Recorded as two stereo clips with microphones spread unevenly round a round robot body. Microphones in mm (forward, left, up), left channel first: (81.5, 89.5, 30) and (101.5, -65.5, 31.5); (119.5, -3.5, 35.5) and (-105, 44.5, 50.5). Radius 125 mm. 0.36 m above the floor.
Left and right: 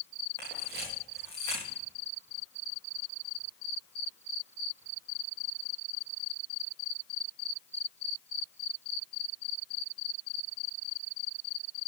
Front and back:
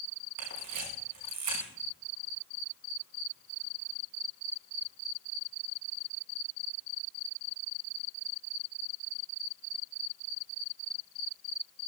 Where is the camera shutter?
175° left, 7 m.